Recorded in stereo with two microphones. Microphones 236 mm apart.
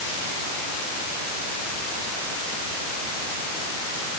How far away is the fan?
No fan in this recording.